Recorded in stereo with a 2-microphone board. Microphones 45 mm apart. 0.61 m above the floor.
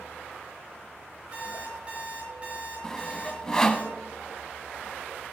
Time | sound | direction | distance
1.3 | an alarm clock | 30° right (ahead or behind) | 5.5 m
2.8 | sawing | 15° left (ahead or behind) | 0.9 m